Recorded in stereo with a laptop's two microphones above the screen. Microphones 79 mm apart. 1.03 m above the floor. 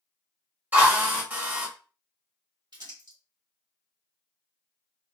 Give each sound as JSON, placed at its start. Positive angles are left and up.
{"t": 0.7, "sound": "a drill", "side_deg": -25, "distance_m": 1.1}
{"t": 2.7, "sound": "crumpling", "side_deg": -60, "distance_m": 1.3}